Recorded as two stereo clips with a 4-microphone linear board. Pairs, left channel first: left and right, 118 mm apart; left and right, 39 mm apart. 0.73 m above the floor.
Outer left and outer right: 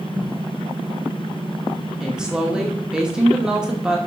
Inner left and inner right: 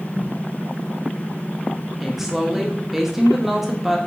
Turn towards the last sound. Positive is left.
turn(degrees=-5)  # may be behind; listen again after turning